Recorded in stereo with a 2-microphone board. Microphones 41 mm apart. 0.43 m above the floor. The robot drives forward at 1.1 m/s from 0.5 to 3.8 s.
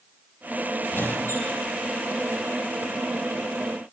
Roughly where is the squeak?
Left.